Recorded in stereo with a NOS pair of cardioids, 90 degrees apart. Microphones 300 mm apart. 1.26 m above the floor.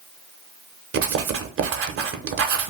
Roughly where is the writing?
Ahead right.